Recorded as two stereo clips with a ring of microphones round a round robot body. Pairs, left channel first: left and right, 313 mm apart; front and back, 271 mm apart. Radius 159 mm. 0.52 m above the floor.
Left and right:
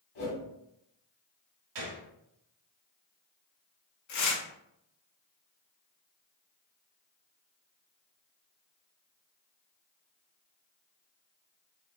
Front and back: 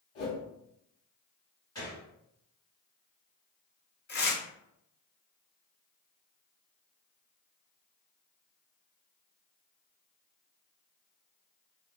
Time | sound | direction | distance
0.1 | a whoosh | 35° left | 1.1 m
1.8 | a gunshot | 80° right | 0.9 m
4.1 | tearing paper | 55° left | 0.9 m